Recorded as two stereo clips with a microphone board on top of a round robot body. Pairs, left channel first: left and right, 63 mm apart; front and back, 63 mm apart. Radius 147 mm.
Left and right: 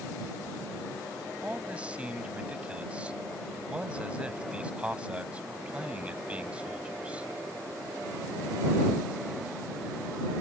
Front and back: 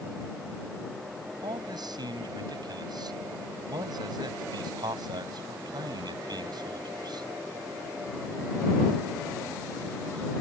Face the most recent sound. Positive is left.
turn(degrees=-165)